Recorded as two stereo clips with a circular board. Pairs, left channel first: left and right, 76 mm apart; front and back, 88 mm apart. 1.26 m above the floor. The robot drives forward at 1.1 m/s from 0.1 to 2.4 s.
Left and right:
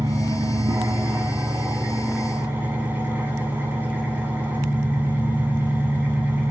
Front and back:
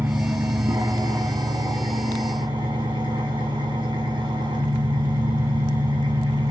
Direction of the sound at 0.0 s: 115° right.